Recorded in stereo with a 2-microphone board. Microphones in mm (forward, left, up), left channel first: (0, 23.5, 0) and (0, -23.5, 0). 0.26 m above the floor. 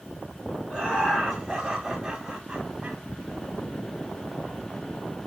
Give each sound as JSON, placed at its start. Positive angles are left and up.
{"t": 0.7, "sound": "laughter", "side_deg": 15, "distance_m": 2.0}